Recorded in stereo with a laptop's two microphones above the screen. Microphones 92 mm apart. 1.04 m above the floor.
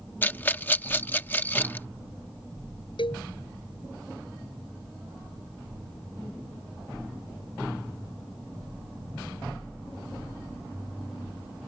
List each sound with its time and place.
0.2 s a rattle: 20° left (ahead or behind)
3.0 s a cowbell: 70° left (ahead or behind)